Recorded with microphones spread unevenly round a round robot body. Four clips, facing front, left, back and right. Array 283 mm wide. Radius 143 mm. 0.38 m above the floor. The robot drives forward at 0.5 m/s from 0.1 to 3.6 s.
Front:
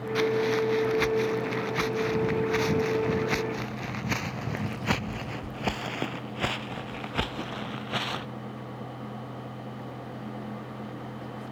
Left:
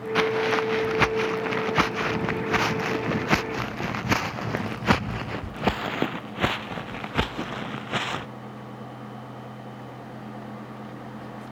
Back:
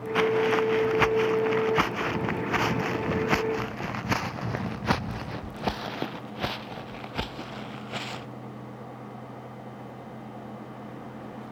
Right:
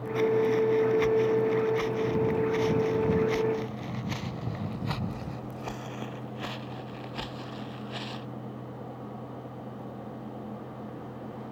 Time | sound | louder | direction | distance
0.1 | footsteps | even, back 2 dB | 110° left | ?